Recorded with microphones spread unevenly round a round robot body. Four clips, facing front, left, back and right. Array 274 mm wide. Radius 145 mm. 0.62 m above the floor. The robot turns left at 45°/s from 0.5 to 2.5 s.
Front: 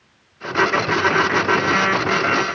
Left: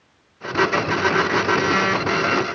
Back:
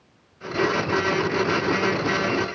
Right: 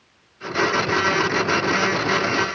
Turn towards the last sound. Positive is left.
No sound to turn to.